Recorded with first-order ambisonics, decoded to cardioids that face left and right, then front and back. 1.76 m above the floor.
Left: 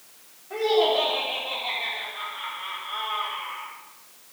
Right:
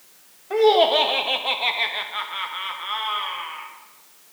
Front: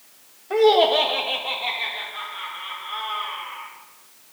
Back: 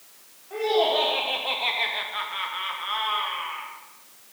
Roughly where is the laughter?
Ahead right.